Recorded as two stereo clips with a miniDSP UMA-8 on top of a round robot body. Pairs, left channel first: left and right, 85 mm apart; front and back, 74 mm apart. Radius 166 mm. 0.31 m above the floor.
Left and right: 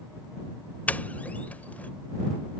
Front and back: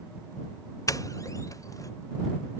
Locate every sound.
0.9 s a doorbell: 20° left